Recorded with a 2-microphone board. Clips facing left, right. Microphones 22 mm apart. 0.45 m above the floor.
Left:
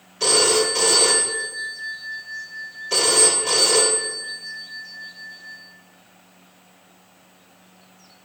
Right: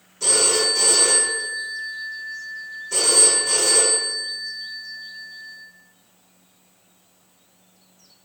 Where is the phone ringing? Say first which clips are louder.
Left 2 dB; 55° left (ahead or behind), 0.8 m.